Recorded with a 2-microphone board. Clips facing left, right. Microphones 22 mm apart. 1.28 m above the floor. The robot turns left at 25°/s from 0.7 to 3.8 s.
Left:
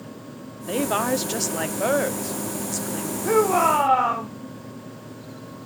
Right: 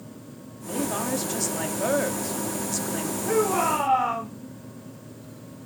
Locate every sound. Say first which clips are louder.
0.7 s a woman speaking: left 5 dB; 45° left, 0.5 m; by 3.1 s 15° right, 0.5 m
3.2 s a shout: left 5 dB; 60° left (ahead or behind), 1.1 m